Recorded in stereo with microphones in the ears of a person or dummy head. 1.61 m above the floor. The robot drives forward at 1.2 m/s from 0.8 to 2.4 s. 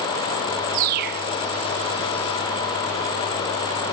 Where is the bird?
45° right (ahead or behind); by 1.3 s 40° right (ahead or behind).